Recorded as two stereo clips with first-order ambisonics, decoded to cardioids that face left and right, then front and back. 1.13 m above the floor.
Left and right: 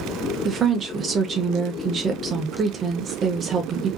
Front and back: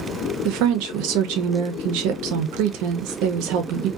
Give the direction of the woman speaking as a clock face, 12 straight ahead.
5 o'clock.